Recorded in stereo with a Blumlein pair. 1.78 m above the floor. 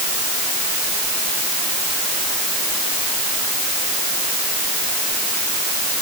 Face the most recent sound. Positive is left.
No sound to turn to.